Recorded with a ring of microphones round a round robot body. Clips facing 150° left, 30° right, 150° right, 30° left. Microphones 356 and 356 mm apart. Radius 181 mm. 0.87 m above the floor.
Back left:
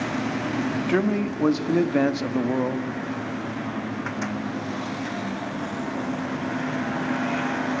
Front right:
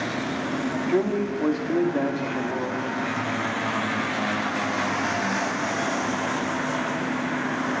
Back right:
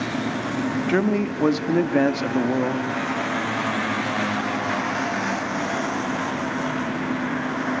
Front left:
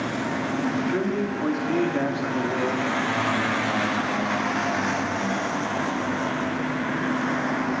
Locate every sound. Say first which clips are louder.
0.9 s a man speaking: front right 1 dB, back right 3 dB; 160° right, 2.5 m; by 2.9 s 175° left, 2 m